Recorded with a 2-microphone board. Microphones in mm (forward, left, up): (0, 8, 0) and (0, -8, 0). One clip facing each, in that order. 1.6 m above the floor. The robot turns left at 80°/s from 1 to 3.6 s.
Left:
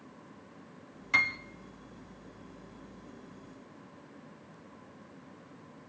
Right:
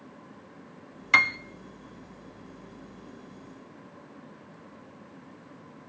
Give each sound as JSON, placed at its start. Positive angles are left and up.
{"t": 1.1, "sound": "a piano", "side_deg": -30, "distance_m": 0.8}